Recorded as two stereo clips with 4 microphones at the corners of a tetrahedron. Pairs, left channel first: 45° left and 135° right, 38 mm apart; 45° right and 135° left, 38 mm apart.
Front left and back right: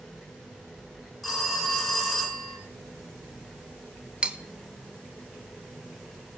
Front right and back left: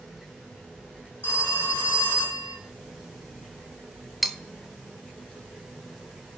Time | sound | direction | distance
1.2 | a phone ringing | 40° right | 2.5 m
4.2 | cutlery clinking | 135° right | 0.6 m